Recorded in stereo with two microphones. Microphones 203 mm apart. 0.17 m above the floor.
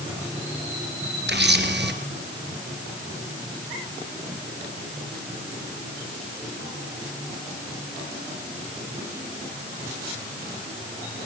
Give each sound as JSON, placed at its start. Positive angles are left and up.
{"t": 1.3, "sound": "a camera shutter", "side_deg": -60, "distance_m": 2.0}